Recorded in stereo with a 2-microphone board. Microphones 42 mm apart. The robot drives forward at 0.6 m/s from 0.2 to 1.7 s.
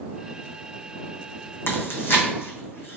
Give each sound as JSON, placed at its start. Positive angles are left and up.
{"t": 1.7, "sound": "chewing", "side_deg": 70, "distance_m": 1.0}